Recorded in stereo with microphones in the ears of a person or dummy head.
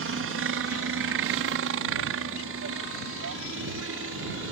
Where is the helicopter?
65° right (ahead or behind).